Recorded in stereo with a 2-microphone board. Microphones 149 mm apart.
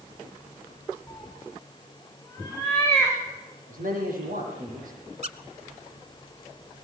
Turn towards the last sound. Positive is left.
turn(degrees=-50)  # may be behind; listen again after turning